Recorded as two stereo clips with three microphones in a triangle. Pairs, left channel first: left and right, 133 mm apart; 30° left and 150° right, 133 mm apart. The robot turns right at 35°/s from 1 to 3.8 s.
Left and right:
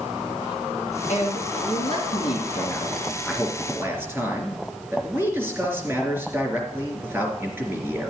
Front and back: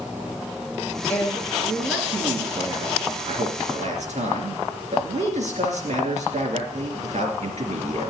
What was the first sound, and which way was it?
A man speaking, 105° left.